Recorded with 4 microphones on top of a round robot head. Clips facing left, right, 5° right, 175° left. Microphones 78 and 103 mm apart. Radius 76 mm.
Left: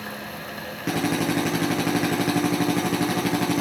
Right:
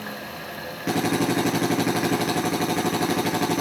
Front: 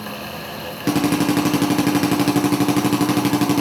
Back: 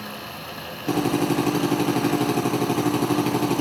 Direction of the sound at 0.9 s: Straight ahead.